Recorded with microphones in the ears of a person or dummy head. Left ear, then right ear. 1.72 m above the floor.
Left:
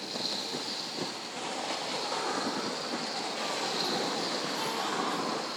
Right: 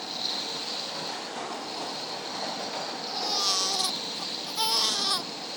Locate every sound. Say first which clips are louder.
0.0 s a machine running: right 3 dB; 20° right (ahead or behind), 1.7 m
3.1 s a baby crying: right 6 dB; 45° right (ahead or behind), 1.4 m